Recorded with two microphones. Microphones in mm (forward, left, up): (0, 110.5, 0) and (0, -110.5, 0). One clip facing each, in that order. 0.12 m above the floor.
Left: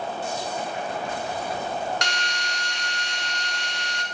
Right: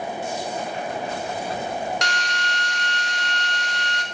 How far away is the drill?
About 0.8 m.